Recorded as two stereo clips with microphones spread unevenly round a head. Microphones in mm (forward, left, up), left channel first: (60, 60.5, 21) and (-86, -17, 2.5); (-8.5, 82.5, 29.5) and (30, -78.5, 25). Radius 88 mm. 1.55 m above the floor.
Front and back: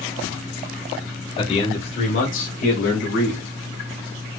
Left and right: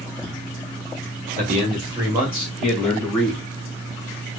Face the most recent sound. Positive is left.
turn(degrees=25)